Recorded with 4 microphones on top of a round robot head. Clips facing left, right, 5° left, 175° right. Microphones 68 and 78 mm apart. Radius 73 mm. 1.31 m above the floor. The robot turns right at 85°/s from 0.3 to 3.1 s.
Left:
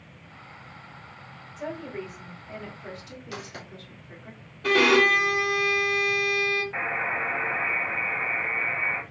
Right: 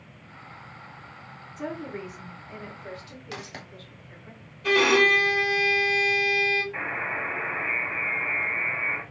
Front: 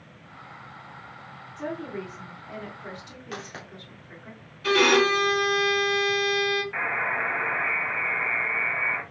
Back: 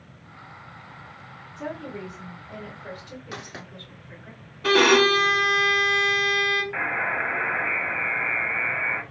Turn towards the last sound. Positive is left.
turn(degrees=105)